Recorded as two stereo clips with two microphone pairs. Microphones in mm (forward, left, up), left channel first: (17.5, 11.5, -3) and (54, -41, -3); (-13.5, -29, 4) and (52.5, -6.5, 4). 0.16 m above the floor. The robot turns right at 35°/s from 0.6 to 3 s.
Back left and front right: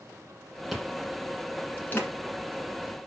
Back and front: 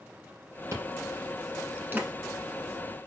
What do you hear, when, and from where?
0.7 s chewing: 30° left, 1.6 m; by 2.1 s 75° left, 1.6 m